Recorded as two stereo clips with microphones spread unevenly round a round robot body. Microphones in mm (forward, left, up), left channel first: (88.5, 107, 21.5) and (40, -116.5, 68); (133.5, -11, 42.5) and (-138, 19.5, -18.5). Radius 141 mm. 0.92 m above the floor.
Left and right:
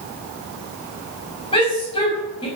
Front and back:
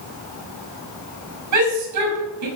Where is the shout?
150° left, 5.5 m.